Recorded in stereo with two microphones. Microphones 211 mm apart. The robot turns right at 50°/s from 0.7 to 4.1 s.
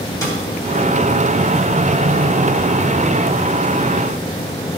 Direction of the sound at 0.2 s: 15° left (ahead or behind).